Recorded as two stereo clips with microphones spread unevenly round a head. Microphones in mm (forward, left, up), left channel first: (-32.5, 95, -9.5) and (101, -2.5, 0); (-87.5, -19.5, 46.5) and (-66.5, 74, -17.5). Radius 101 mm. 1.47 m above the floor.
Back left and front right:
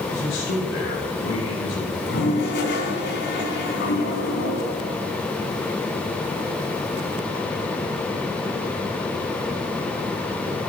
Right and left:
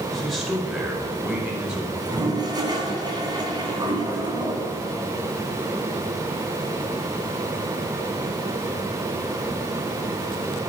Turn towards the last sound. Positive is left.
turn(degrees=140)